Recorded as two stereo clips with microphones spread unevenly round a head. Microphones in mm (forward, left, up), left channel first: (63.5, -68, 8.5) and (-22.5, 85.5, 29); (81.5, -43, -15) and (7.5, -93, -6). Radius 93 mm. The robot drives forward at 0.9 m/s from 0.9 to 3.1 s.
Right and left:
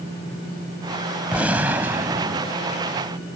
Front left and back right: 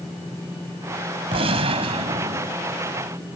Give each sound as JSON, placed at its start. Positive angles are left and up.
{"t": 1.3, "sound": "a gunshot", "azimuth_deg": -160}